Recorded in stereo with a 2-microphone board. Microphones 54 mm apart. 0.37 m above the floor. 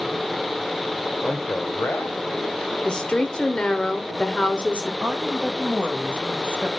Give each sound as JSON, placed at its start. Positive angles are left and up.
{"t": 1.2, "sound": "a man speaking", "side_deg": 30, "distance_m": 1.2}
{"t": 2.9, "sound": "a woman speaking", "side_deg": 20, "distance_m": 1.0}
{"t": 5.0, "sound": "a woman speaking", "side_deg": -25, "distance_m": 1.2}